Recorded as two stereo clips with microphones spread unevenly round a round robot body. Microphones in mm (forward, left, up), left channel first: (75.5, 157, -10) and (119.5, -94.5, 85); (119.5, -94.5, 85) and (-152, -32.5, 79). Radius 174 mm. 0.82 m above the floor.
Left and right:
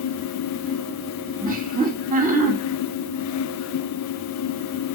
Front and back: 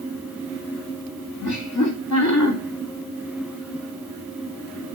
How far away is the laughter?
About 3 m.